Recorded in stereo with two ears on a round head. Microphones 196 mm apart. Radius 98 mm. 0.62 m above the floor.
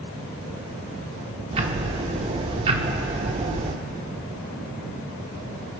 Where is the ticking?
30° right (ahead or behind), 1.1 m.